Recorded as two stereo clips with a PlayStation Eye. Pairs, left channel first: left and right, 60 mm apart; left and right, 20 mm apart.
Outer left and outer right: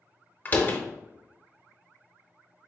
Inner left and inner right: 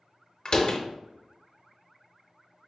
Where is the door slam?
30° left (ahead or behind), 0.6 m.